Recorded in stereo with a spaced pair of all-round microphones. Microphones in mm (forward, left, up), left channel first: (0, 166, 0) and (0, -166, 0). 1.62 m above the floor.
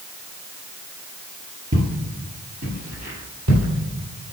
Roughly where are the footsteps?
Right.